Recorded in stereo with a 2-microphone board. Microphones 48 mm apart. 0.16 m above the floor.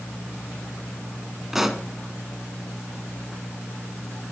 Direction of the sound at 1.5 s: 5° right (ahead or behind).